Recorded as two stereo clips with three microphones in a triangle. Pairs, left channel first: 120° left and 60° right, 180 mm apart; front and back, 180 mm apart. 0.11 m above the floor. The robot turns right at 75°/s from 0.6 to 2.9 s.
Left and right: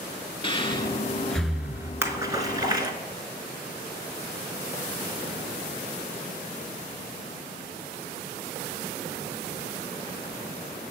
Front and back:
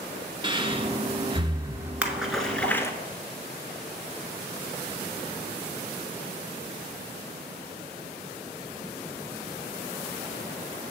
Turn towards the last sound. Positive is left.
turn(degrees=-50)